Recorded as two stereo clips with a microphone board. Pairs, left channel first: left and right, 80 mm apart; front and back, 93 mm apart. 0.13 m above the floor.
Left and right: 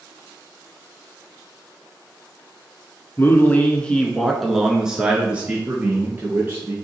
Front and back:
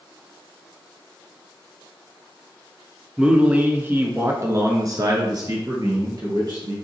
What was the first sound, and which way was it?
A man speaking, 110° left.